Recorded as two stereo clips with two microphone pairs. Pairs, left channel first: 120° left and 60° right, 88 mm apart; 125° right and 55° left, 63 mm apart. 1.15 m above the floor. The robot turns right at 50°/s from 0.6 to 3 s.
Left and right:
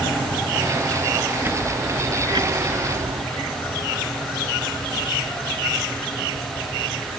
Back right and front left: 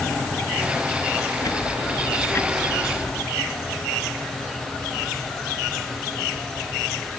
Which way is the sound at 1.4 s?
130° right.